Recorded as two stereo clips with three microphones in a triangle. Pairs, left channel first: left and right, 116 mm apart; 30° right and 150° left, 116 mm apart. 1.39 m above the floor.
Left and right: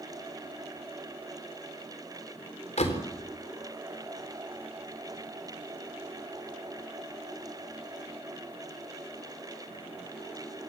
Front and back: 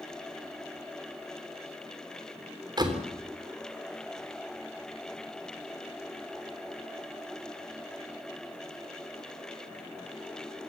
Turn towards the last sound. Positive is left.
turn(degrees=100)